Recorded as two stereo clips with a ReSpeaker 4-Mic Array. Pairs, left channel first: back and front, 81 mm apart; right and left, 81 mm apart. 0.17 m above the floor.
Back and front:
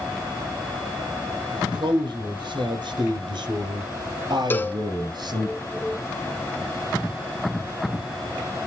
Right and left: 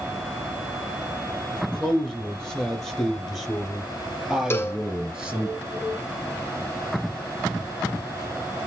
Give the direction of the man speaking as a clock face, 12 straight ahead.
12 o'clock.